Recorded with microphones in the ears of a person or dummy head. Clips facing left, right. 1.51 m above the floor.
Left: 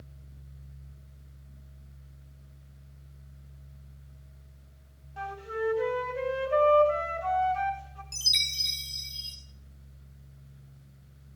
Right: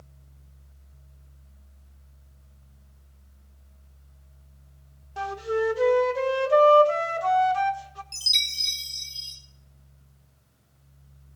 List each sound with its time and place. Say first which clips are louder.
5.2 s a flute: right 7 dB; 70° right (ahead or behind), 1.3 m
8.1 s a chime: even; 5° left (ahead or behind), 1.6 m